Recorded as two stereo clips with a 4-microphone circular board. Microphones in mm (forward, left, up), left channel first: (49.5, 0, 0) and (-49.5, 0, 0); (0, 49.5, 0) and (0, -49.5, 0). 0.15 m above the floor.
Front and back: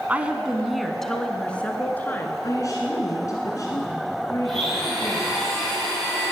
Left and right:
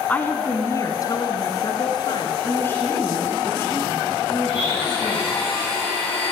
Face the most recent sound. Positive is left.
turn(degrees=85)